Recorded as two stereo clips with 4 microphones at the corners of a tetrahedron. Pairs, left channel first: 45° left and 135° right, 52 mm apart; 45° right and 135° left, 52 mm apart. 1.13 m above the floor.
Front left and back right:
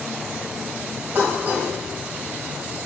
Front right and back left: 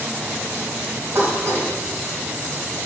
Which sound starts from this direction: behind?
Dishes clattering, at 1.1 s.